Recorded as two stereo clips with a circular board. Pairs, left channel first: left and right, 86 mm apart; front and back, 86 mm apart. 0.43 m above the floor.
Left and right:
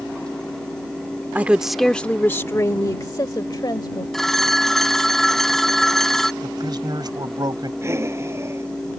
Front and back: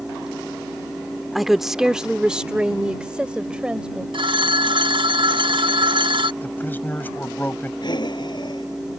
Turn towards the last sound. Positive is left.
turn(degrees=-35)